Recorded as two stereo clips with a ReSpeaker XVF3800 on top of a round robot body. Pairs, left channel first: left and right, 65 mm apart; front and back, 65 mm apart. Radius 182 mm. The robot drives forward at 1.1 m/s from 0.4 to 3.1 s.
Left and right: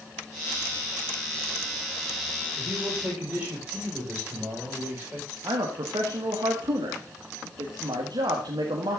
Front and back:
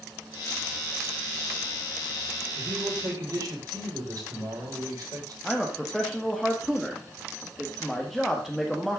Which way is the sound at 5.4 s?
90° right.